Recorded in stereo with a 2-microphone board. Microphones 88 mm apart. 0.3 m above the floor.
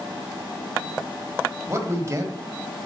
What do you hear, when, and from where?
1.7 s a man speaking: 35° right (ahead or behind), 1.2 m